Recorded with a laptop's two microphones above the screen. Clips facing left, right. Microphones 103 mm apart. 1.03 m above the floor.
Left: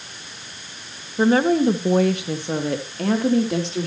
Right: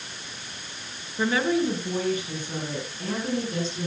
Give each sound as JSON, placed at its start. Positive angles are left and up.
{"t": 1.2, "sound": "a woman speaking", "side_deg": 35, "distance_m": 1.2}